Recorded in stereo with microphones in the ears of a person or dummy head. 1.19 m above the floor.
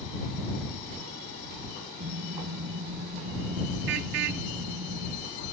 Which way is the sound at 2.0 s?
65° right (ahead or behind).